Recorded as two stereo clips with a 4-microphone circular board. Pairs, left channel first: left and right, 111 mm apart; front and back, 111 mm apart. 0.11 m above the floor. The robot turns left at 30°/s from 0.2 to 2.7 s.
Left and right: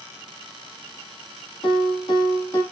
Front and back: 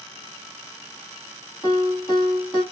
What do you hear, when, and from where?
1.6 s a piano: 60° left, 4 m; by 2.6 s 30° left, 4 m